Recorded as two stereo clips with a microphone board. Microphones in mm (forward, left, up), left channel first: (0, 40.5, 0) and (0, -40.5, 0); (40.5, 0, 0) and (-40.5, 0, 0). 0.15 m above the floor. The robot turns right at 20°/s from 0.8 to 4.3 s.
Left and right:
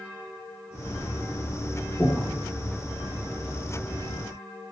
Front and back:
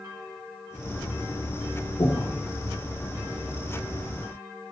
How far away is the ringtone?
I don't hear a ringtone.